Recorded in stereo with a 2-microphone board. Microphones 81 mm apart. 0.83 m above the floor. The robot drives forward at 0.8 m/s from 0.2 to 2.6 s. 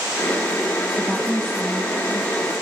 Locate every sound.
0.9 s a woman speaking: 5° right (ahead or behind), 0.9 m